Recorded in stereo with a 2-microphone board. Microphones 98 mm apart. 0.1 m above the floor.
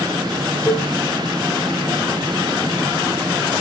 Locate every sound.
0.7 s a cowbell: 30° right (ahead or behind), 2 m